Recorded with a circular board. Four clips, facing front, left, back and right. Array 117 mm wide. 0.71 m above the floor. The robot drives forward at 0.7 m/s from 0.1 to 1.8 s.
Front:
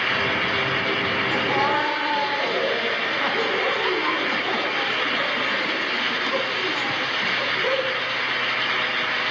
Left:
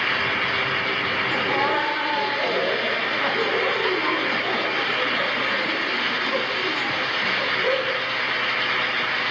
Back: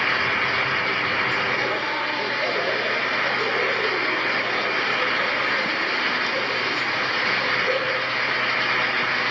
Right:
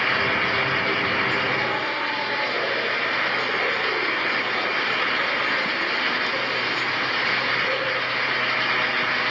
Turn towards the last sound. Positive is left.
turn(degrees=35)